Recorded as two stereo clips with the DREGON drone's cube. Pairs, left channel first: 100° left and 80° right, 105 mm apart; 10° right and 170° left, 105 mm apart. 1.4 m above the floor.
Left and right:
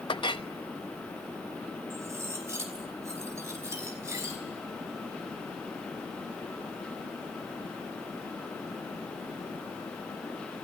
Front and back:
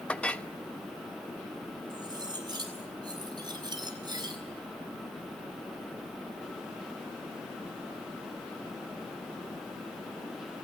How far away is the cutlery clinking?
About 5 m.